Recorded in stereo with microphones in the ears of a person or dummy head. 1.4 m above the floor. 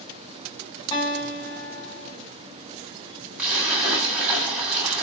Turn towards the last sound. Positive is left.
turn(degrees=-5)  # may be behind; listen again after turning